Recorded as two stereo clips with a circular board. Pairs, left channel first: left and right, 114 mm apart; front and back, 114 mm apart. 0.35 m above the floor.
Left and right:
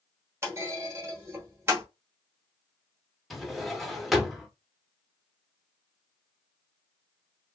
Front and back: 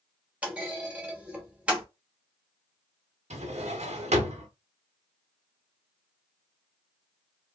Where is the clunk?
120° right, 1.0 m.